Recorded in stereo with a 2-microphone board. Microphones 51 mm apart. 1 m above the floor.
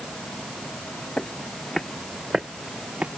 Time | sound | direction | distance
1.2 | footsteps | 25° left (ahead or behind) | ?